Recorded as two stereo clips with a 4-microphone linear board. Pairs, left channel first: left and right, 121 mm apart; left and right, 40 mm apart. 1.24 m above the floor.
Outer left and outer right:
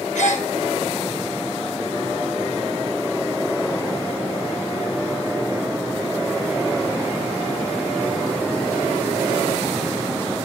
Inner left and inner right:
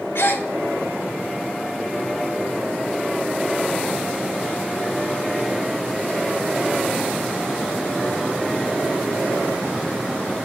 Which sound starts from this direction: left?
A gasp, at 0.1 s.